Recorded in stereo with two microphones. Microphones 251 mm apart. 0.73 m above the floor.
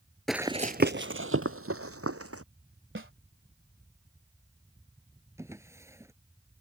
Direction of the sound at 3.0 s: 50° right (ahead or behind).